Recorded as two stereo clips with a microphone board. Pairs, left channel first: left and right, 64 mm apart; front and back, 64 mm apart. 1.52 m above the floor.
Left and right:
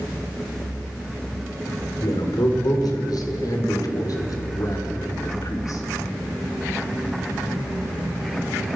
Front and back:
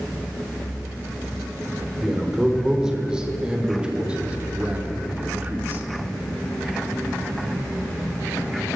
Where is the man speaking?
95° left, 5.5 m; by 5.8 s 115° left, 4 m.